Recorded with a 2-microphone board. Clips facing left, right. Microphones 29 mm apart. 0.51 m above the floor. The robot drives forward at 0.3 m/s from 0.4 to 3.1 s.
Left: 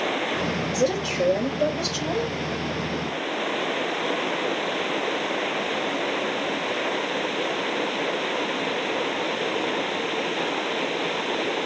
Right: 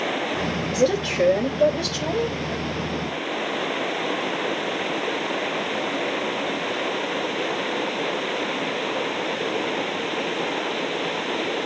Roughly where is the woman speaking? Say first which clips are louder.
Right 5 dB; right.